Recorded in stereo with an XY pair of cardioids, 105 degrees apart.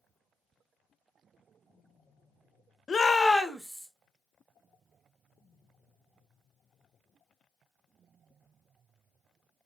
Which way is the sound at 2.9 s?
35° left.